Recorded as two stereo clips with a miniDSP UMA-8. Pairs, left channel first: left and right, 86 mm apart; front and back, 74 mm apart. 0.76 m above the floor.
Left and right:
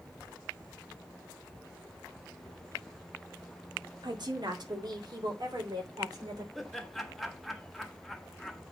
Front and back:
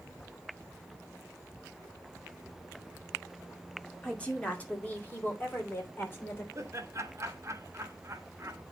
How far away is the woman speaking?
About 2 m.